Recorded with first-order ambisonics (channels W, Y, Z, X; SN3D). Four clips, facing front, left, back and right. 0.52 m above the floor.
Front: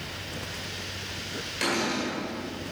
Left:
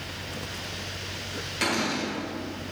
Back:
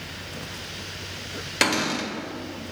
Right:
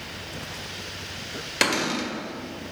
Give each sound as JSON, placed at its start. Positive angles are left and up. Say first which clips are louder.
{"t": 1.6, "sound": "a cupboard door", "louder": "right 3 dB, back 4 dB", "azimuth_deg": -135, "distance_m": 1.4}